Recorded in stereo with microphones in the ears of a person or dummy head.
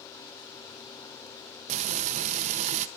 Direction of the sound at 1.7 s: 40° right (ahead or behind).